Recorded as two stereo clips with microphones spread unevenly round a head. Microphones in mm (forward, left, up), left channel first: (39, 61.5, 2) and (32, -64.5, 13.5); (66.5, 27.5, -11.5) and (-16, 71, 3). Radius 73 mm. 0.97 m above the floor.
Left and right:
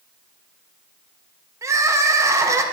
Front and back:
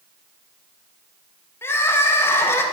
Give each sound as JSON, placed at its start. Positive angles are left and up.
{"t": 1.6, "sound": "crying", "azimuth_deg": -35, "distance_m": 0.9}